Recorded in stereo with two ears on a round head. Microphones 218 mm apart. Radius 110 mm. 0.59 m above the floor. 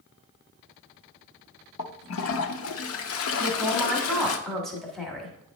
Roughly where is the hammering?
No hammering in this recording.